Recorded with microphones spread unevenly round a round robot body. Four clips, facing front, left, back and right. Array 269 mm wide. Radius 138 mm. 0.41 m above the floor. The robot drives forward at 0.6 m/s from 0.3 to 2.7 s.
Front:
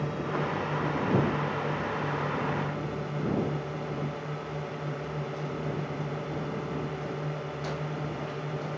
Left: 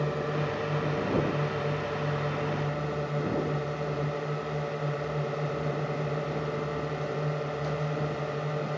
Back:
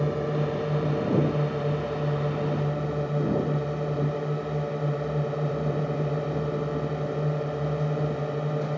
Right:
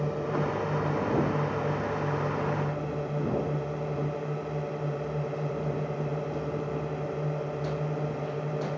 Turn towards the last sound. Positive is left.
turn(degrees=-175)